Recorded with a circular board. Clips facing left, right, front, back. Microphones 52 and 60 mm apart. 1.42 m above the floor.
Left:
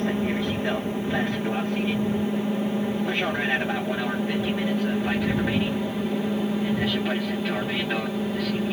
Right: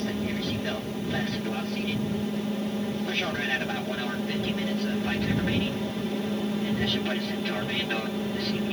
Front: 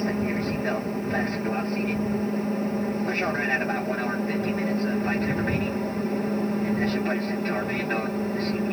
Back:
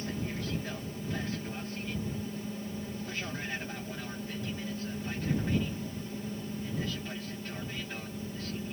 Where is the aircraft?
25° left; by 8.7 s 10° left.